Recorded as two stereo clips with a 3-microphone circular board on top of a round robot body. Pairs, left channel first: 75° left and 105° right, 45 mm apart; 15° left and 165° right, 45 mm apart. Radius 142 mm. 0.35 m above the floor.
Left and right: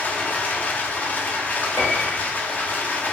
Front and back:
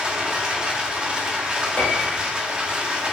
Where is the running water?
125° left, 0.8 m.